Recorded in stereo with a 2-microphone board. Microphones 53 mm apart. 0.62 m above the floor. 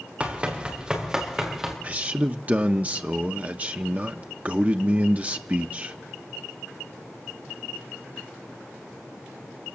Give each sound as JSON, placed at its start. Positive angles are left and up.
{"t": 0.2, "sound": "running footsteps", "side_deg": -25, "distance_m": 4.5}
{"t": 1.8, "sound": "a man speaking", "side_deg": -30, "distance_m": 0.7}